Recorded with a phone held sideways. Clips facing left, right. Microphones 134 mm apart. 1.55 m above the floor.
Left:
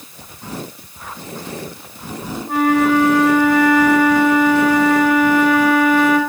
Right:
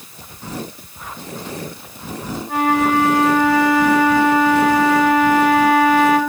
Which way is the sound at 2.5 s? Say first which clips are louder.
Left 3 dB; 45° left (ahead or behind).